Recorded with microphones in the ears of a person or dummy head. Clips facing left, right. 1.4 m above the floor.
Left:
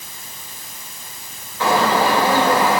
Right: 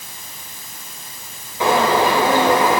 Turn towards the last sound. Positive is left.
turn(degrees=-15)  # may be behind; listen again after turning